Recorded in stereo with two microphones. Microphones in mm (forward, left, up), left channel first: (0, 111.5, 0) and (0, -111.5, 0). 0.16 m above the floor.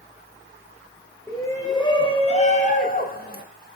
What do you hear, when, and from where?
1.3 s a shout: 10° left (ahead or behind), 3.5 m; by 3.5 s 45° left (ahead or behind), 2.5 m